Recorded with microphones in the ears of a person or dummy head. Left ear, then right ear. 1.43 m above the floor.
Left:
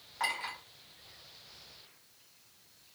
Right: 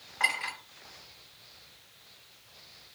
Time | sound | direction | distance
0.2 | a clink | 5° right (ahead or behind) | 1.2 m